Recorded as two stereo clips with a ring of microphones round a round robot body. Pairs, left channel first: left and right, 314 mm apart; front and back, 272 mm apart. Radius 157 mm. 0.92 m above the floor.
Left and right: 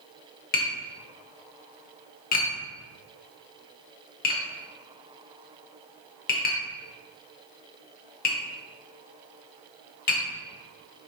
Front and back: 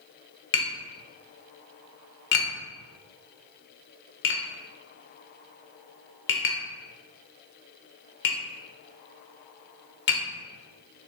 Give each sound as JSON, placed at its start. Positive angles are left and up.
{"t": 0.5, "sound": "tapping", "azimuth_deg": 35, "distance_m": 0.8}